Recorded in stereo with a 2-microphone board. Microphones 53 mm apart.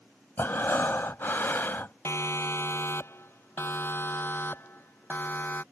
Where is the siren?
55° left (ahead or behind); by 5.6 s 35° left (ahead or behind).